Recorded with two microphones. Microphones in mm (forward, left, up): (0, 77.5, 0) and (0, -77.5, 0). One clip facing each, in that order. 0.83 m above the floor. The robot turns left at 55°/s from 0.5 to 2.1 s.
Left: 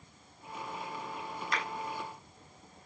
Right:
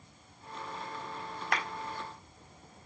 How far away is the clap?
About 4 m.